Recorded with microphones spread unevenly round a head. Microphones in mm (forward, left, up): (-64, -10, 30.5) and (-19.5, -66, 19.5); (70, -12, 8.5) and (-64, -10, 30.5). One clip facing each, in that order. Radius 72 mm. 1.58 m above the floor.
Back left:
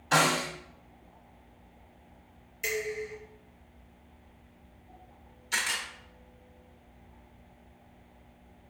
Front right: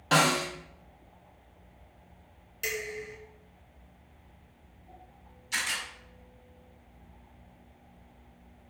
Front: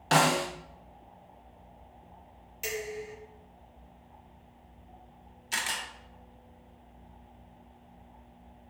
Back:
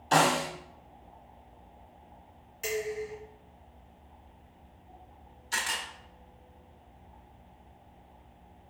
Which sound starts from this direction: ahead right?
Dishes clattering, at 2.6 s.